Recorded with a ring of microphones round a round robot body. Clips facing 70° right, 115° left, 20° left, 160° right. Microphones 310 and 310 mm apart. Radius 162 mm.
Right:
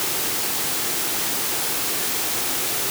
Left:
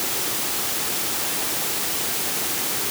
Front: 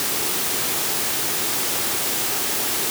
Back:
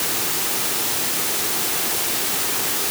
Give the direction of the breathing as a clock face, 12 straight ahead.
No breathing in this recording.